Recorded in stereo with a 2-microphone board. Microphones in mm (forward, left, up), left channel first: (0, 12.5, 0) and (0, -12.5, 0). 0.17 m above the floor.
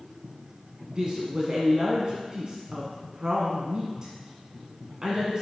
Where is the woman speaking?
35° right (ahead or behind), 1.4 m.